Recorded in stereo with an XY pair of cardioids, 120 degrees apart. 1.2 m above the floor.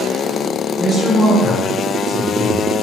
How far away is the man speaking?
About 0.9 m.